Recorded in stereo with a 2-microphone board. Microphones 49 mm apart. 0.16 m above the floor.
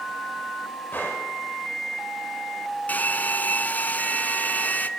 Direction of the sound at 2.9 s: 35° left (ahead or behind).